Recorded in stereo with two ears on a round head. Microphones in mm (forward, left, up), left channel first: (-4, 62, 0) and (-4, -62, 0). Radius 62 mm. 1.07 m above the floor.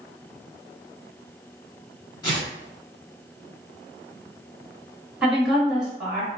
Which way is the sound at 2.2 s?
30° left (ahead or behind).